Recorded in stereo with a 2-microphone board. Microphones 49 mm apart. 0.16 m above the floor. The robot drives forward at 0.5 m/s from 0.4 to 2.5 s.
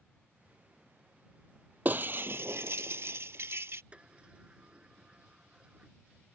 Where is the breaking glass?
40° right (ahead or behind); by 3.8 s 60° right (ahead or behind).